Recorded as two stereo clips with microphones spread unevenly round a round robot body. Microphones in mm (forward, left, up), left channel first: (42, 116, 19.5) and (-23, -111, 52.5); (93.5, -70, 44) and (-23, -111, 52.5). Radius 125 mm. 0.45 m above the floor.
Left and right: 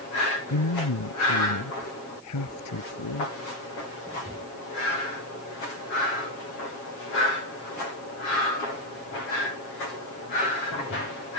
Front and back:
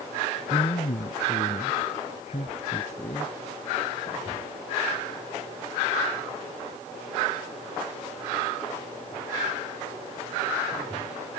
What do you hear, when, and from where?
0.5 s a man speaking: 65° left; by 3.4 s 80° left